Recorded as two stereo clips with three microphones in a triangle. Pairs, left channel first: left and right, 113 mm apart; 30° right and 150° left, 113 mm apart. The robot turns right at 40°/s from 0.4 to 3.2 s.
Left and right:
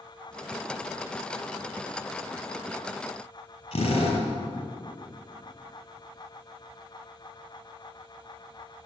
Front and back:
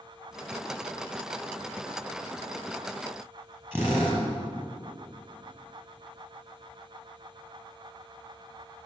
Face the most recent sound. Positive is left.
turn(degrees=75)